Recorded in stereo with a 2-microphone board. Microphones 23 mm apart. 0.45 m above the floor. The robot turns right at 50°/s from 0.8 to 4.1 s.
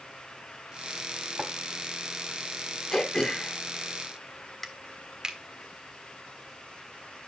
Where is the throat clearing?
25° left (ahead or behind), 1.3 m; by 4.7 s 15° left (ahead or behind), 1.3 m.